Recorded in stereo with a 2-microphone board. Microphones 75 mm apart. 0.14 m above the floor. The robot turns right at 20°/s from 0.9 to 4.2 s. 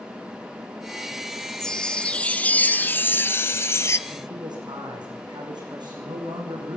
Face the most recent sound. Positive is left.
turn(degrees=-80)